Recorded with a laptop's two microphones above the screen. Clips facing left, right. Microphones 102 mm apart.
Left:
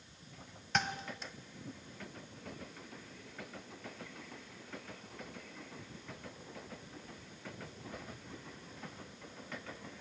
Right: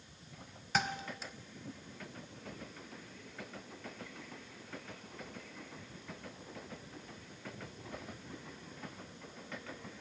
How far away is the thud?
About 1.3 m.